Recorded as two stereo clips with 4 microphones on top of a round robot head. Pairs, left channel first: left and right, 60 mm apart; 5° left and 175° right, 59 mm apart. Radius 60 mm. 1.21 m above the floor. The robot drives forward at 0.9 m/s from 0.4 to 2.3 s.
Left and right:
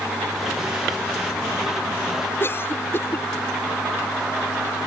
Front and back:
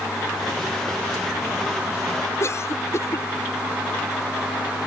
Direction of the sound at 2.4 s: 45° left.